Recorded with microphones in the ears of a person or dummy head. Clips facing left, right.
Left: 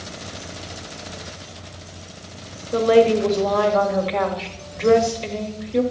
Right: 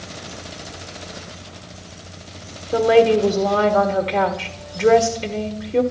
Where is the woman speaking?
50° right (ahead or behind), 1.2 m.